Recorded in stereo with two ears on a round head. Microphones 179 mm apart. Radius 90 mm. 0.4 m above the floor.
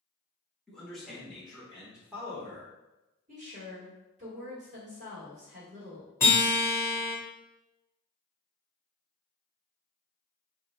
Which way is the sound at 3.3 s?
40° right (ahead or behind).